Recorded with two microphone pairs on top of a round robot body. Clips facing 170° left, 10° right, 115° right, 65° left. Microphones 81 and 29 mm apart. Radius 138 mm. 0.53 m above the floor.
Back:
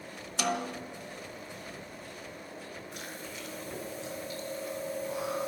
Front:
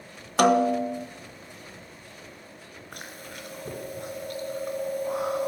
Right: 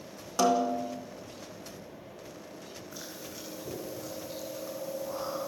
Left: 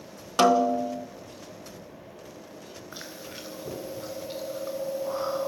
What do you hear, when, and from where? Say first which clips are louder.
0.4 s a snare drum: front 13 dB, left 5 dB; 30° left, 1.1 m
2.9 s chewing: front 1 dB, left 4 dB; 25° left, 3.5 m